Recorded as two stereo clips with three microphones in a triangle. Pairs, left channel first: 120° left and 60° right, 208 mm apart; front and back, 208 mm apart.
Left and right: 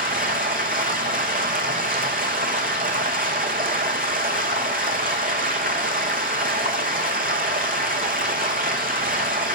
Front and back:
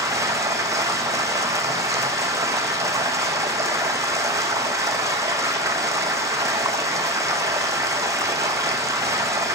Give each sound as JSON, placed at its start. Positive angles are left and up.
{"t": 0.0, "sound": "running water", "azimuth_deg": -105, "distance_m": 1.0}